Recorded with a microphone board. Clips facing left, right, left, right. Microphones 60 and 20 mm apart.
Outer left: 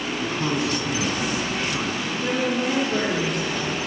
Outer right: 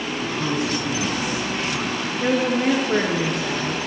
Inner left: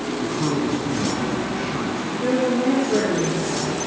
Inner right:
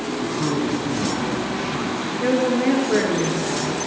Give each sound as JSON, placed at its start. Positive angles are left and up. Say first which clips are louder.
{"t": 0.2, "sound": "a man speaking", "louder": "even, even", "side_deg": 5, "distance_m": 1.5}
{"t": 2.2, "sound": "a woman speaking", "louder": "outer right 4 dB, inner right 1 dB", "side_deg": -65, "distance_m": 2.5}